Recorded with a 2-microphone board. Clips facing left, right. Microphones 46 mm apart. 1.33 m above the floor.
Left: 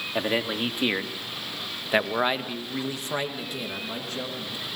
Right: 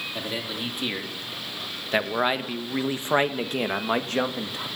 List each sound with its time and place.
0.1 s a man speaking: 35° left (ahead or behind), 3 m; by 4.7 s 75° right (ahead or behind), 2.5 m